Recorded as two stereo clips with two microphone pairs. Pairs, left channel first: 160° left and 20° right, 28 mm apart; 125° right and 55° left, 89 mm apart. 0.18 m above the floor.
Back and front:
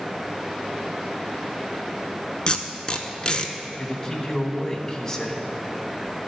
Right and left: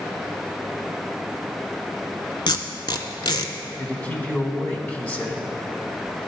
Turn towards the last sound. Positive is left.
turn(degrees=-170)